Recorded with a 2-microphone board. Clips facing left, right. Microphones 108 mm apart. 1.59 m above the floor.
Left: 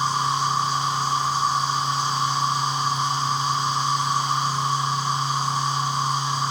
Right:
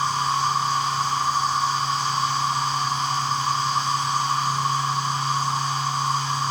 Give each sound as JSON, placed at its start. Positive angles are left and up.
{"t": 0.0, "sound": "an insect", "side_deg": 15, "distance_m": 3.0}